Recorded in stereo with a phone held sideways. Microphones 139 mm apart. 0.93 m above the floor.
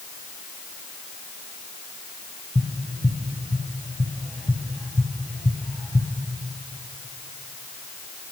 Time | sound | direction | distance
2.5 | tapping | 10° left (ahead or behind) | 1.2 m